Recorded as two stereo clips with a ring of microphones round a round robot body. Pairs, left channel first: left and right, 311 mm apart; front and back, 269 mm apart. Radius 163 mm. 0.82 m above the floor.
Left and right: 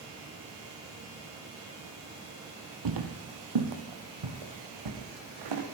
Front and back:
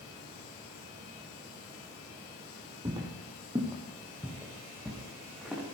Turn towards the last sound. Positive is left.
turn(degrees=-90)